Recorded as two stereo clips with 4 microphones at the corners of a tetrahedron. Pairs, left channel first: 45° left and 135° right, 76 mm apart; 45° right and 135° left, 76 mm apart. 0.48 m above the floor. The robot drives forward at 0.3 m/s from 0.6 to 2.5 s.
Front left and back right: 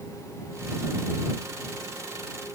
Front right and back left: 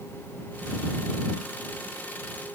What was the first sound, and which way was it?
Only background noise.